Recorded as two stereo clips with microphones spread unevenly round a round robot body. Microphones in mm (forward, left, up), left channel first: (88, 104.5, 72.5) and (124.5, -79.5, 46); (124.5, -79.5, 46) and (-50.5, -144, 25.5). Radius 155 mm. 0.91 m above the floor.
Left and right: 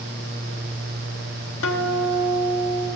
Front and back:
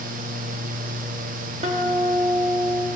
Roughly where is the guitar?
Behind left.